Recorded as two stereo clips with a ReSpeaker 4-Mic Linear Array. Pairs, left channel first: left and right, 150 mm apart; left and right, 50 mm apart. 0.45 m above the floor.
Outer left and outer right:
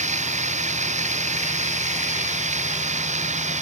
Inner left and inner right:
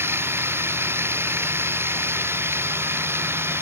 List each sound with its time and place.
0.0 s running water: 50° right (ahead or behind)